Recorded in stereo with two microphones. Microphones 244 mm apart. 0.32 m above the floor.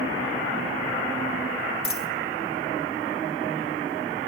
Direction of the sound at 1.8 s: 60° left (ahead or behind).